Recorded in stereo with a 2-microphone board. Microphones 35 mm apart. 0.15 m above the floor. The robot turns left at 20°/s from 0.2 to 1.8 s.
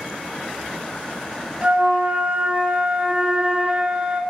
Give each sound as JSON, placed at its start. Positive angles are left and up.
{"t": 1.6, "sound": "a flute", "side_deg": -40, "distance_m": 0.5}